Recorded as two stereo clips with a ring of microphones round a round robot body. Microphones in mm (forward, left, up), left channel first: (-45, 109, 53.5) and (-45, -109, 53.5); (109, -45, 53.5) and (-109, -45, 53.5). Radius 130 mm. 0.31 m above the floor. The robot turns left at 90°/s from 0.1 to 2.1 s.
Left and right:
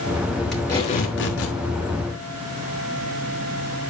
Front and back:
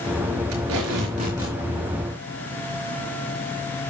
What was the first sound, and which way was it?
Tape being pulled, straight behind.